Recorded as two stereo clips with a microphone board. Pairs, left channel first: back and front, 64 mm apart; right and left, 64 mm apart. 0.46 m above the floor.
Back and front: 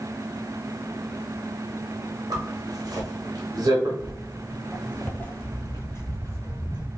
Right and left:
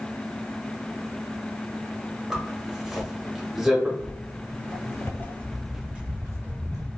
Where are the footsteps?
95° right, 1.2 m; by 6.9 s 125° left, 1.1 m.